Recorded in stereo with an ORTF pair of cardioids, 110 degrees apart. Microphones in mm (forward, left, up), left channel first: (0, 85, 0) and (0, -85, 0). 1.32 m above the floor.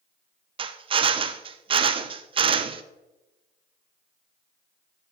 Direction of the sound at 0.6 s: 30° right.